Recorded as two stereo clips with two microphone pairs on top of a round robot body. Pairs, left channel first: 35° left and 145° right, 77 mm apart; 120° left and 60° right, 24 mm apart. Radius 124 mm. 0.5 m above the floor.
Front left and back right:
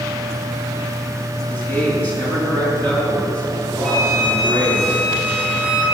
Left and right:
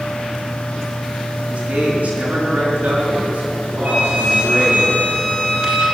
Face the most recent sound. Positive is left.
turn(degrees=-40)